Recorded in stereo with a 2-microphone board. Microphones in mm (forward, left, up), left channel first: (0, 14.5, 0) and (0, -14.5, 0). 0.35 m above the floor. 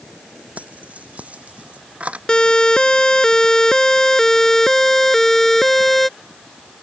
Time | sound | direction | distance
0.6 | keys jangling | 60° right (ahead or behind) | ?
2.3 | a siren | 30° left (ahead or behind) | ?